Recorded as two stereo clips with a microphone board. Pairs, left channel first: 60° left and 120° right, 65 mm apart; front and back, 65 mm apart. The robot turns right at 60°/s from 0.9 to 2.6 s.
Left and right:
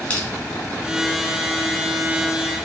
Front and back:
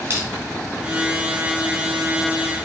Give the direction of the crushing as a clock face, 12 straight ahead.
8 o'clock.